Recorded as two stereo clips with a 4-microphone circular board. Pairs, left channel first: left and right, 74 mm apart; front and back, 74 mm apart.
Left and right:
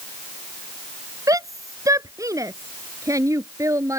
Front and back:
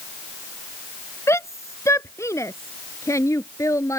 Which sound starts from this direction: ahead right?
A shout, at 1.3 s.